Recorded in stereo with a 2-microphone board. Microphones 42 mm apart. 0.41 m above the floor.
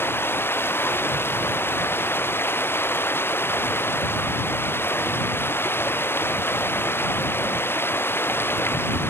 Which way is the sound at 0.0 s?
75° left (ahead or behind).